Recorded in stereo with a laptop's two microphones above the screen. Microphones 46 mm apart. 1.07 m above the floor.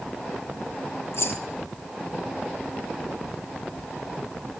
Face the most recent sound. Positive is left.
turn(degrees=70)  # may be behind; listen again after turning